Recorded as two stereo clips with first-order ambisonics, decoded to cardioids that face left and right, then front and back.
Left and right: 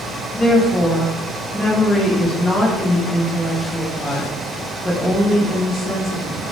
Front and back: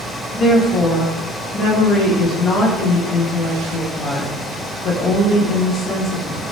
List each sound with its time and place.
0.3 s a woman speaking: 15° left, 0.7 m